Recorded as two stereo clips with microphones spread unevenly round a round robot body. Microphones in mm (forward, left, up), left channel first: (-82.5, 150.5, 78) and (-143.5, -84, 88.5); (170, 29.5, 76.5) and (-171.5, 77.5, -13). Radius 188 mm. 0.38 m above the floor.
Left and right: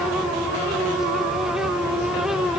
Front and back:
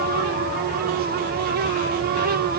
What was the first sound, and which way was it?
Only background noise.